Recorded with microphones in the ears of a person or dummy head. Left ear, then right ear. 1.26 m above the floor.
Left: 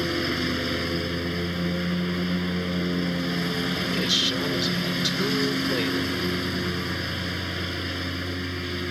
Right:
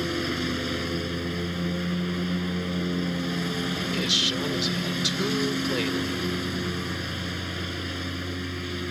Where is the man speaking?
5° left (ahead or behind).